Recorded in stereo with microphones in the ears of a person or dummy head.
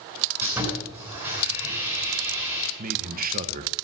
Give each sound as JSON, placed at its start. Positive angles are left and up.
{"t": 0.4, "sound": "sawing", "side_deg": -15, "distance_m": 9.0}
{"t": 2.8, "sound": "a man speaking", "side_deg": -45, "distance_m": 1.4}